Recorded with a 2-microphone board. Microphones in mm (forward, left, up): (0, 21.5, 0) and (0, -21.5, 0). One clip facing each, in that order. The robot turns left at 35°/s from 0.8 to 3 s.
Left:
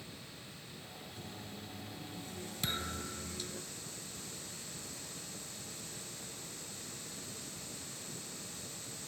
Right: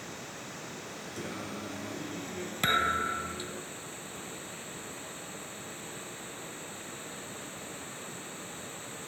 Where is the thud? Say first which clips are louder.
Right 14 dB; 50° right (ahead or behind); by 3.5 s 60° right (ahead or behind).